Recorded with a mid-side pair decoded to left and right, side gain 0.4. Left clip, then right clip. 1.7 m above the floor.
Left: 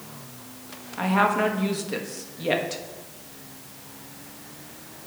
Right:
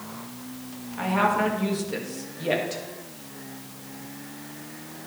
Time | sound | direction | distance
1.0 | a woman speaking | 30° left | 2 m